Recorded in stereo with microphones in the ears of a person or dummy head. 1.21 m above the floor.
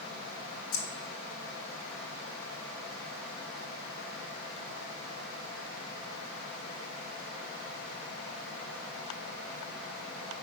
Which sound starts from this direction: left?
Keys jangling, at 0.7 s.